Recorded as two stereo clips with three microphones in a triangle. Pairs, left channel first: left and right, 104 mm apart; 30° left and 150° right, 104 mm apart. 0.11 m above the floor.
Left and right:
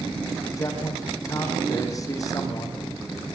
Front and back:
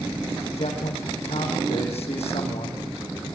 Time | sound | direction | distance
0.6 | a man speaking | 35° left | 6.5 m